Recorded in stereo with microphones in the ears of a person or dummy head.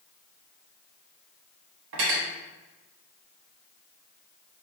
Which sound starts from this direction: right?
Cutlery clinking, at 1.9 s.